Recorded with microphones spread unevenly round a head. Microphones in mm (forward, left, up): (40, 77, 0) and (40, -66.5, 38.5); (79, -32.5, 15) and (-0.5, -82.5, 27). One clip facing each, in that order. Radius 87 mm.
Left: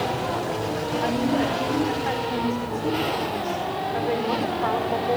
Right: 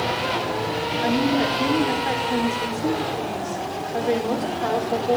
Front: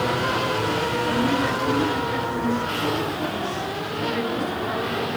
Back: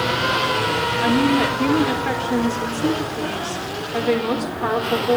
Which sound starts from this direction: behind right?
A woman speaking, at 1.0 s.